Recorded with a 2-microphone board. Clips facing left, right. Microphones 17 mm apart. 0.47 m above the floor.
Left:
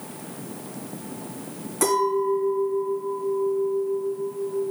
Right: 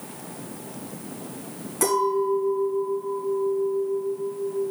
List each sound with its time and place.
1.8 s a clink: 5° left (ahead or behind), 2 m